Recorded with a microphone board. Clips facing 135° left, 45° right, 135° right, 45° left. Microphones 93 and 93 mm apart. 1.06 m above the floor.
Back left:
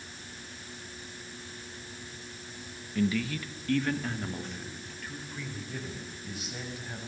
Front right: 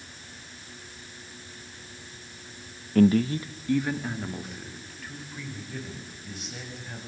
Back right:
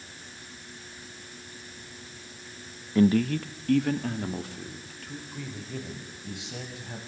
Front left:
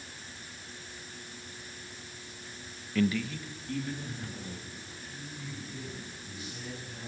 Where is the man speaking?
70° right, 0.7 m; by 7.0 s 140° right, 6.5 m.